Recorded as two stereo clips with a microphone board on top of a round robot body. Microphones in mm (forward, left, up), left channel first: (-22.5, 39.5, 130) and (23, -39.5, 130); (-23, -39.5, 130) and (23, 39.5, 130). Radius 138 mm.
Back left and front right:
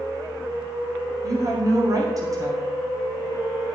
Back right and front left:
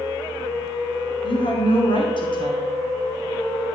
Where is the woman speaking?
105° right, 1.9 m.